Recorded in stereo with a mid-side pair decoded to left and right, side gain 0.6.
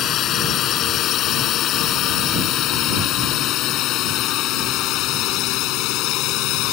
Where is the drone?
55° left; by 6.7 s 70° left.